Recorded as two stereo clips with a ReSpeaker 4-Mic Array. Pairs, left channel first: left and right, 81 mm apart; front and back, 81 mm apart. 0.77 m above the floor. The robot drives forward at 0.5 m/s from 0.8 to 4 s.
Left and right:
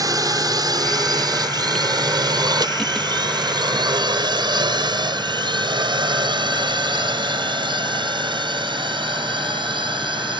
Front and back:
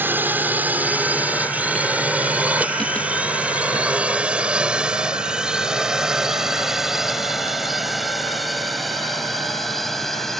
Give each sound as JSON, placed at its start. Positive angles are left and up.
{"t": 0.0, "sound": "a drone", "azimuth_deg": -120}